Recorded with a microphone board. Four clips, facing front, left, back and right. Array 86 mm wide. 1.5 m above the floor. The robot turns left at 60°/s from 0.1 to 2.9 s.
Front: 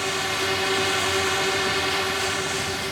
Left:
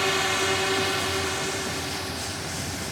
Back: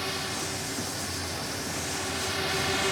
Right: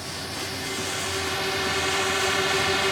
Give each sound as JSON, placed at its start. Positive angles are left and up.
{"t": 0.0, "sound": "a drone", "azimuth_deg": 65}